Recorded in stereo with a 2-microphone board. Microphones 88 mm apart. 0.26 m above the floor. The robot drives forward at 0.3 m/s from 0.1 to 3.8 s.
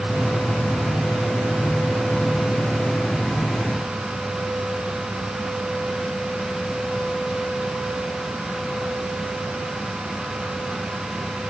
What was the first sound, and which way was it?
Only background noise.